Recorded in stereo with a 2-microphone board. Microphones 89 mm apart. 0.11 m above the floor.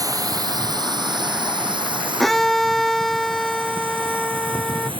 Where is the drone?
40° right (ahead or behind); by 5.0 s 70° right (ahead or behind).